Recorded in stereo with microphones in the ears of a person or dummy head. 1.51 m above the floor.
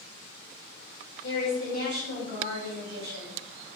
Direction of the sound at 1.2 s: 50° right (ahead or behind).